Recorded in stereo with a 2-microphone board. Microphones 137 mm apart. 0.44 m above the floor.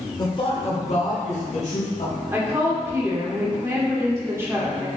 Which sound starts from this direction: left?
A man speaking, at 0.2 s.